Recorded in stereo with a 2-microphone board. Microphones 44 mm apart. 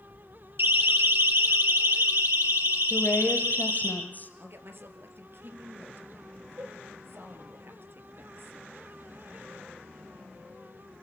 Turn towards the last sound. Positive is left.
turn(degrees=-55)  # may be behind; listen again after turning